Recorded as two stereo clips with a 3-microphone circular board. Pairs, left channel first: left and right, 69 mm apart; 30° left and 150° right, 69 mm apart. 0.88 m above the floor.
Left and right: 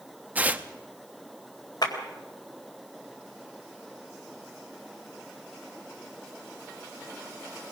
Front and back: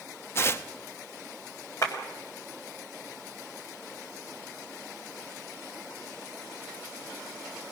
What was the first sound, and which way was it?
Tearing paper, 25° right.